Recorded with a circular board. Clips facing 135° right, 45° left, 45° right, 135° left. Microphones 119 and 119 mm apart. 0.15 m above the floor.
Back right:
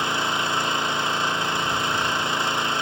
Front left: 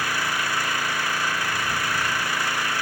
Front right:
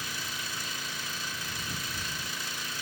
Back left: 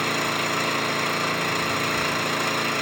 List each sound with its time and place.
0.0 s an engine running: 155° left